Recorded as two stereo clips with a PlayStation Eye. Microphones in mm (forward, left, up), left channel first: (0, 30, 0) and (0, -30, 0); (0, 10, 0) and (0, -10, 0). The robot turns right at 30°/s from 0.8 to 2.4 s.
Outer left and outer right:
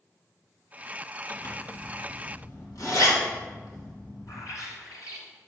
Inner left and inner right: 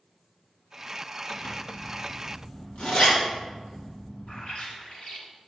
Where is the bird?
75° left (ahead or behind), 1.6 m.